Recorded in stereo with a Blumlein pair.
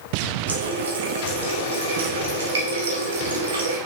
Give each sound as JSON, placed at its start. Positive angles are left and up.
{"t": 0.5, "sound": "a running tap", "azimuth_deg": -65, "distance_m": 2.0}